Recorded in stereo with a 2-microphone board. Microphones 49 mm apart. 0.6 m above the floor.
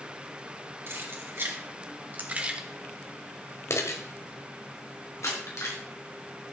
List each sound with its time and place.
0.9 s keys jangling: 55° right (ahead or behind), 3.5 m; by 5.8 s 85° left, 4.5 m